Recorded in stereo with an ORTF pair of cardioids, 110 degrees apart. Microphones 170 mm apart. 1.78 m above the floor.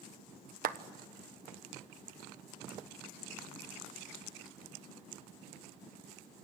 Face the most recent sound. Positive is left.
turn(degrees=-65)